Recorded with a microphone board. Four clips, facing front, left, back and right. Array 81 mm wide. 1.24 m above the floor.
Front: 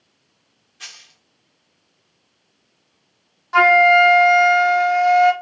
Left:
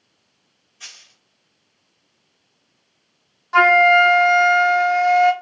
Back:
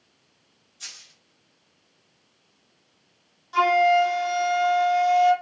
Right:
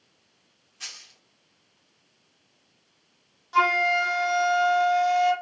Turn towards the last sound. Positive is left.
turn(degrees=45)